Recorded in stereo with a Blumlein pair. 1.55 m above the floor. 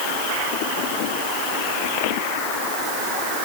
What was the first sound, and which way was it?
Only background noise.